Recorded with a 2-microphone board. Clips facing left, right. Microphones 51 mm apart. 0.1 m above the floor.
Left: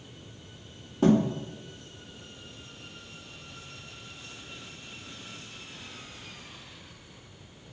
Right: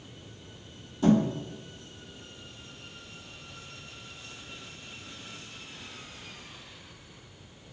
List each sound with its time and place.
1.0 s a thud: 60° left (ahead or behind), 1.2 m